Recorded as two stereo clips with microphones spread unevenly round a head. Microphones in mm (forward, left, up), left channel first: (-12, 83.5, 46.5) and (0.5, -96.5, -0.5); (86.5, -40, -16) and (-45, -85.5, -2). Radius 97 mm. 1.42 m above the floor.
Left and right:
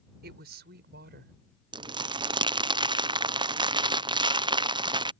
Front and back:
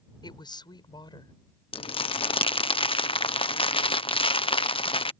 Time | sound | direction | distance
0.2 | a woman speaking | 40° right | ?
1.7 | crumpling | 30° right | ?